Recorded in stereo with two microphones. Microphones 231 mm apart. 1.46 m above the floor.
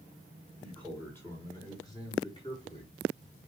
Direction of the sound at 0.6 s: 5° left (ahead or behind).